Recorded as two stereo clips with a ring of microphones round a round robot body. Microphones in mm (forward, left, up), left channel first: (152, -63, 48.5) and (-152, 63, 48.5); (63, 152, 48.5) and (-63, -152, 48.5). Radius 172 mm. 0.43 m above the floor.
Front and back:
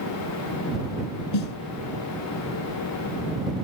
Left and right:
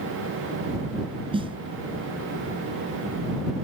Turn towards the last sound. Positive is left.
turn(degrees=-35)